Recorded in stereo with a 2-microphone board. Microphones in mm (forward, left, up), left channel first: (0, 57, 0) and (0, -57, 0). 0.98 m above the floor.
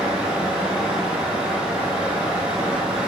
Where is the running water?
10° right (ahead or behind), 1.1 m.